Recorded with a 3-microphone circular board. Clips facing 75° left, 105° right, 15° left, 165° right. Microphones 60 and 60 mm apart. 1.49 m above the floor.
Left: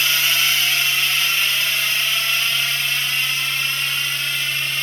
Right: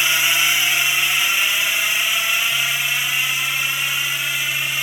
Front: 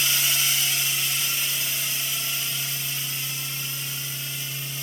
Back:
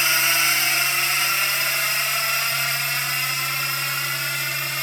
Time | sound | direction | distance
0.0 | a drone | 175° right | ?